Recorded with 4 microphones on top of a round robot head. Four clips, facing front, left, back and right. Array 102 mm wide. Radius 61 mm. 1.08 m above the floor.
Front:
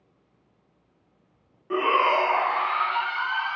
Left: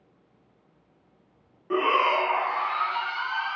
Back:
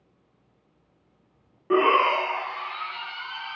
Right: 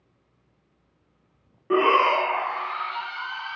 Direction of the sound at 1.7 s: 145° right.